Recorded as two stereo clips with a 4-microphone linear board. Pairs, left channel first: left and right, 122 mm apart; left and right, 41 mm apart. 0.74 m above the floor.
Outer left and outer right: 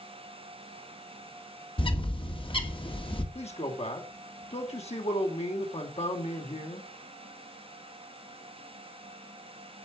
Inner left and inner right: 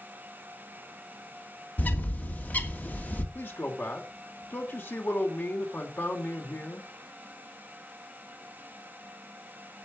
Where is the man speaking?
60° left (ahead or behind), 3 m.